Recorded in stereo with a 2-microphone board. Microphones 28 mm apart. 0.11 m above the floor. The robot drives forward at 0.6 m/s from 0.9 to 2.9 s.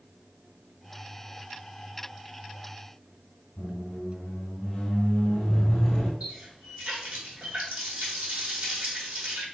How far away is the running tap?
About 2.5 m.